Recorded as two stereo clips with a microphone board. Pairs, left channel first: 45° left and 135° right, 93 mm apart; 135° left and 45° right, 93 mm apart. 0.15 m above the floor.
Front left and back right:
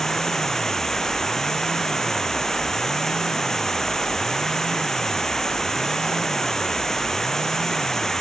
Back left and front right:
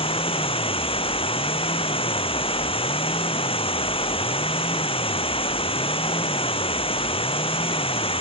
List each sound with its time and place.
0.0 s running water: 130° left